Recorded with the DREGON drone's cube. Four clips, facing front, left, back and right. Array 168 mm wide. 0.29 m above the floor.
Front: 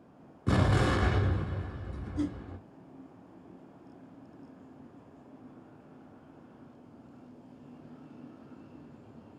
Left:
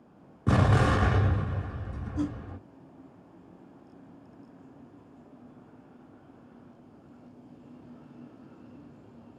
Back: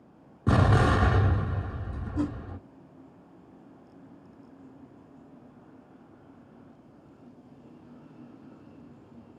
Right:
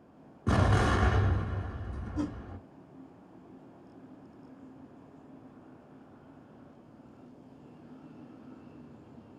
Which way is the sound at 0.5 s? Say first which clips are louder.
Left 3 dB, back 4 dB; 140° left.